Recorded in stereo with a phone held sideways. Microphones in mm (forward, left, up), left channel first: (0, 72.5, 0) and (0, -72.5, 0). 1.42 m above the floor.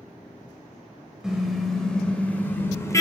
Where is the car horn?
5° right (ahead or behind), 4.5 m; by 3.0 s 25° left (ahead or behind), 3.5 m.